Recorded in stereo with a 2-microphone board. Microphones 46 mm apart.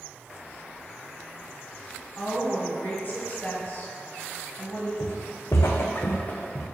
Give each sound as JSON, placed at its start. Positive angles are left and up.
{"t": 2.2, "sound": "a woman speaking", "side_deg": 40, "distance_m": 2.5}
{"t": 5.0, "sound": "footsteps", "side_deg": 80, "distance_m": 1.2}